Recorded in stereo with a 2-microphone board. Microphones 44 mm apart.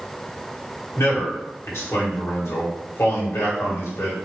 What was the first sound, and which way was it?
A man speaking, 80° left.